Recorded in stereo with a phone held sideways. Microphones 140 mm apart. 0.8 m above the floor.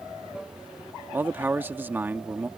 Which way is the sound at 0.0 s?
5° right (ahead or behind).